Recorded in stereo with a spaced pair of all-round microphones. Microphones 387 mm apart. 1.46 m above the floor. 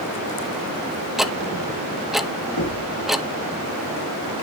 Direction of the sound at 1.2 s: Centre (ahead or behind).